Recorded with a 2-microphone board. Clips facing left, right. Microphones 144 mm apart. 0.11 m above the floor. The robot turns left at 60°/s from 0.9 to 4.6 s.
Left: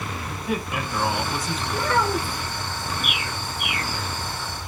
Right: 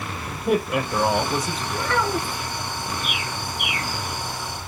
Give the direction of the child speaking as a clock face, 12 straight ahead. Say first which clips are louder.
Left 1 dB; 6 o'clock.